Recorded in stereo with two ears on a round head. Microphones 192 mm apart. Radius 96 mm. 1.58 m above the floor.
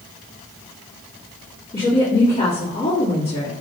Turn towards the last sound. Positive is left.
turn(degrees=35)  # may be behind; listen again after turning